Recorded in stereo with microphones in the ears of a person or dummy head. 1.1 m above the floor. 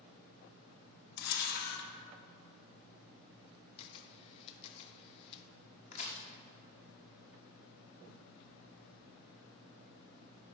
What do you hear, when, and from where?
1.2 s a camera shutter: 55° left (ahead or behind), 1.1 m
3.8 s a camera shutter: 35° left (ahead or behind), 0.6 m
5.9 s a crack: 35° left (ahead or behind), 1.2 m